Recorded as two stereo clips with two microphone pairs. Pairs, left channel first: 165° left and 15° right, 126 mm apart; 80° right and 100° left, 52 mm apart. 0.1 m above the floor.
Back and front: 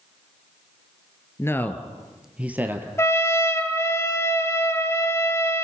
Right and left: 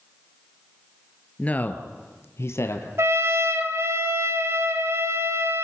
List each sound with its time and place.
1.4 s a man speaking: 135° right, 1.8 m; by 2.9 s 85° right, 2.5 m
3.0 s a trumpet: 100° left, 1.6 m